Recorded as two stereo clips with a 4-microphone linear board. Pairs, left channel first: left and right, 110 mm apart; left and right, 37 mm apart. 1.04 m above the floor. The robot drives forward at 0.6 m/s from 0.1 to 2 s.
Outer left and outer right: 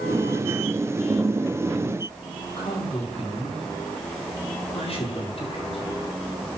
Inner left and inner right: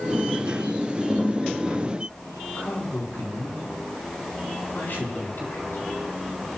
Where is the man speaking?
65° left (ahead or behind), 7.5 m.